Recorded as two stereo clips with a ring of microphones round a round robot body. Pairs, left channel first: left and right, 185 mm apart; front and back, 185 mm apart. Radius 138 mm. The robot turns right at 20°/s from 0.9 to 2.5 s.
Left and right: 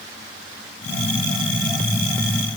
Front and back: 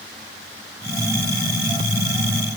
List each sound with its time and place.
Only background noise.